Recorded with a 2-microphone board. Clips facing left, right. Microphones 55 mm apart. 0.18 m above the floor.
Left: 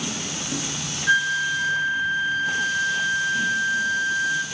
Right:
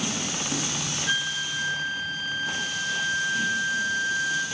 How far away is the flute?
About 0.6 m.